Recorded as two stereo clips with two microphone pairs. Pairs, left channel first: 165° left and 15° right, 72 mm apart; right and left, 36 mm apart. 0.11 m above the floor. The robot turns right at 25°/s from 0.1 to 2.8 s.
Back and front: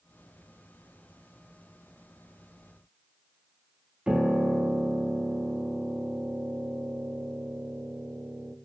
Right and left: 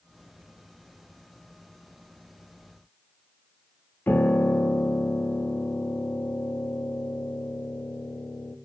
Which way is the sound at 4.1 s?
95° right.